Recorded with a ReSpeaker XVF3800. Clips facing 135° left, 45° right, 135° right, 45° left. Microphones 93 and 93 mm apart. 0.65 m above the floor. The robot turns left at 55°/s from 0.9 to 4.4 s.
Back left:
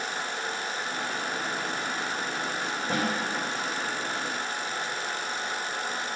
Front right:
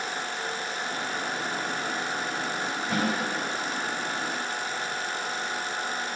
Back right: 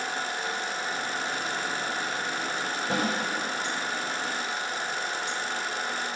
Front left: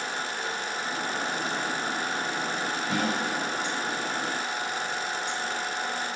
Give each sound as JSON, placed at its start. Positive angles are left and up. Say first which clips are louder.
{"t": 2.9, "sound": "a snare drum", "louder": "front right 1 dB, back right 1 dB", "azimuth_deg": 175, "distance_m": 3.5}